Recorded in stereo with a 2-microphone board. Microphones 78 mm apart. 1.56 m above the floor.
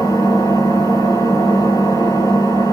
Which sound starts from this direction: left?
An engine running, at 0.0 s.